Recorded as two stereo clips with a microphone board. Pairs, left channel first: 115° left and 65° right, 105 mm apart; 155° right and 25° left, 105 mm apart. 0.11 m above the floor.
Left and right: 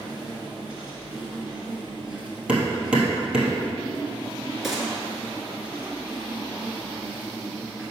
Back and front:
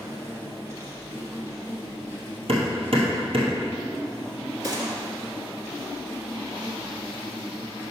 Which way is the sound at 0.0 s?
5° left.